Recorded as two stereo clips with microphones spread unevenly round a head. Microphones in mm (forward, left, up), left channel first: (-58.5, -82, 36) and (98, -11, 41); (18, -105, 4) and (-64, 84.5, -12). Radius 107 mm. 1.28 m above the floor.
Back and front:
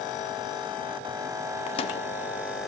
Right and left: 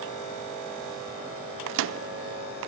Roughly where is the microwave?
Behind left.